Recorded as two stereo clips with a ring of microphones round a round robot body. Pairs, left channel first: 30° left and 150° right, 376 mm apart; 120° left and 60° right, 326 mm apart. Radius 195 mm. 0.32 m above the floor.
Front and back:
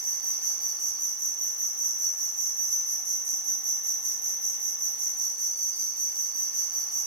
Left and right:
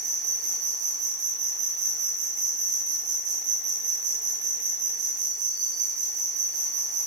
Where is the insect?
100° right, 2.0 m.